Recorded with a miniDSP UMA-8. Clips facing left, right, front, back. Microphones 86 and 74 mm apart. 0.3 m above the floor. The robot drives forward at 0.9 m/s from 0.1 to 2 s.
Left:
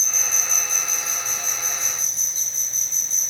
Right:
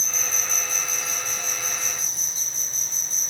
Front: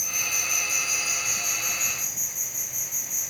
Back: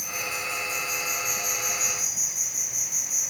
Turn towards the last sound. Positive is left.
turn(degrees=-95)